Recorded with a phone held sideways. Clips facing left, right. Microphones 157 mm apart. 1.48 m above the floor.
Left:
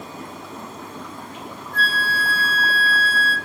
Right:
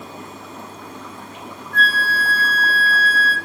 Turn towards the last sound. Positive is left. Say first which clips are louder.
# right 3 dB
turn(degrees=-55)  # may be behind; listen again after turning